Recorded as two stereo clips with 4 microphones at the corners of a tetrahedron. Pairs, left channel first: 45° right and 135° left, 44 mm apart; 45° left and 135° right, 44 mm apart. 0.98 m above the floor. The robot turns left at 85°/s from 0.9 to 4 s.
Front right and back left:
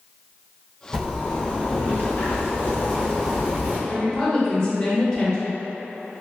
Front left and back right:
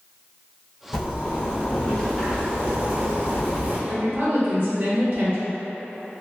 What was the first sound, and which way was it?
A zipper, 65° left.